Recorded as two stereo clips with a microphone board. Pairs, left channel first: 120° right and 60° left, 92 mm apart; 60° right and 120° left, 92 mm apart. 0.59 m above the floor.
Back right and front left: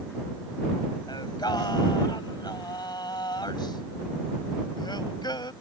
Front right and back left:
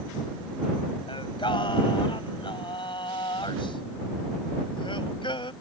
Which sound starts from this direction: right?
Singing, at 1.1 s.